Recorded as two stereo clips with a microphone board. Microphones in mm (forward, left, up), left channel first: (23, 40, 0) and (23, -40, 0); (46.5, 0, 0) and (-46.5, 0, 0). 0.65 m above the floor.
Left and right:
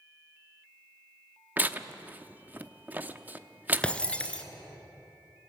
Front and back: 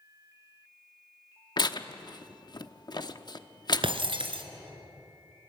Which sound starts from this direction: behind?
Breaking glass, at 3.8 s.